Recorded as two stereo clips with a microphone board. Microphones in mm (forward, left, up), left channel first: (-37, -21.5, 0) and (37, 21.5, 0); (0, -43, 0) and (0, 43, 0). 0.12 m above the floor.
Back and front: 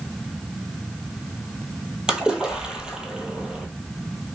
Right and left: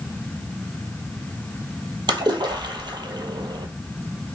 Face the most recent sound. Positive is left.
turn(degrees=110)